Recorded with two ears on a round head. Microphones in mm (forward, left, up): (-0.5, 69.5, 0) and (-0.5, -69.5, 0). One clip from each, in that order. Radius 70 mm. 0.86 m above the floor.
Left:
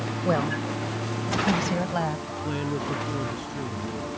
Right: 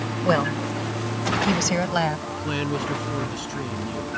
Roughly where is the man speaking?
Right.